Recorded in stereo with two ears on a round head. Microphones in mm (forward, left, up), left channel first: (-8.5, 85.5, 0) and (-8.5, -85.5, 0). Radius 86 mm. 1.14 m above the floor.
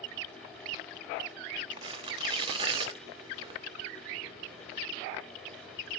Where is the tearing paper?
25° right (ahead or behind), 0.9 m.